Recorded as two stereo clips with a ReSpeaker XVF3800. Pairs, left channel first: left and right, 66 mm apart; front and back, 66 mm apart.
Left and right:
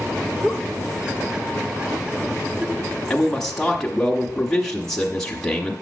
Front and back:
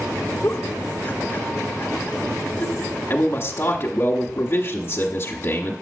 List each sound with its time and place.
0.4 s a giggle: 25° right, 0.6 m
3.1 s a man speaking: 10° left, 1.0 m